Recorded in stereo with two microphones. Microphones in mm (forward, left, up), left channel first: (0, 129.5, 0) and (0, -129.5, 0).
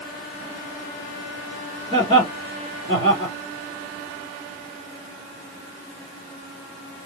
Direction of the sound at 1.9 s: 20° left (ahead or behind).